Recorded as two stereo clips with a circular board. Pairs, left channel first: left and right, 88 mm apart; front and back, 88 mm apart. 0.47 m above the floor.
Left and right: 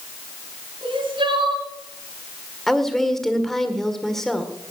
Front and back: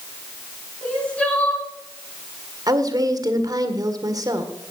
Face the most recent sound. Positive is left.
turn(degrees=175)